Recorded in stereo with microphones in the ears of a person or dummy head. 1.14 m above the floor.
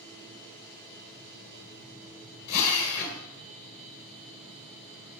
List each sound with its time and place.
2.5 s a drill: 50° left (ahead or behind), 3 m